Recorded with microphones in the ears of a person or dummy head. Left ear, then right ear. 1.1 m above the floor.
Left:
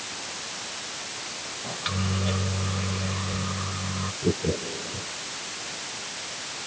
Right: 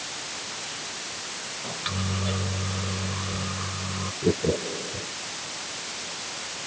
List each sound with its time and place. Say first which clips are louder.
1.6 s a microwave: left 1 dB; centre (ahead or behind)
4.2 s laughter: right 3 dB; 50° right (ahead or behind)